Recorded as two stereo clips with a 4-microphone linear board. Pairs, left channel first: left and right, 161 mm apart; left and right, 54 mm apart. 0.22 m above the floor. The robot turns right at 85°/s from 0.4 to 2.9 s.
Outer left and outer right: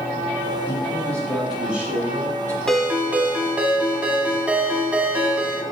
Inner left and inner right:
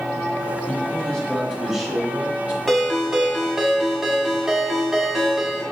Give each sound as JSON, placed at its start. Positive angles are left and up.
{"t": 0.7, "sound": "a man speaking", "side_deg": 20, "distance_m": 1.1}
{"t": 2.7, "sound": "a ringtone", "side_deg": 5, "distance_m": 0.7}